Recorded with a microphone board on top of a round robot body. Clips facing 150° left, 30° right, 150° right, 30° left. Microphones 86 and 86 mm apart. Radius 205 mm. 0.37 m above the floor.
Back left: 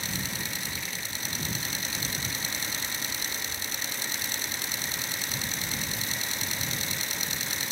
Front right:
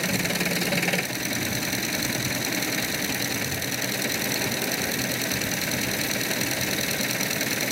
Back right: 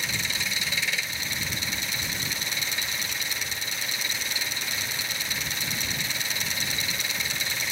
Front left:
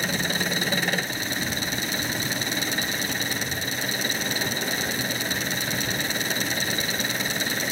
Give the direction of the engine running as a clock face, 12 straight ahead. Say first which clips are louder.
Front right 9 dB, front left 6 dB; 1 o'clock.